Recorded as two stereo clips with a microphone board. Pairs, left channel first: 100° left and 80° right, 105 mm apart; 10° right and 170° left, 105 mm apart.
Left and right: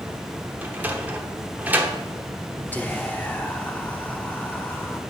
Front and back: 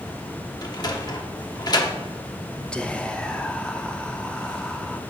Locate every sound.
0.6 s a sliding door: 15° right, 1.0 m
2.7 s whispering: 55° left, 0.6 m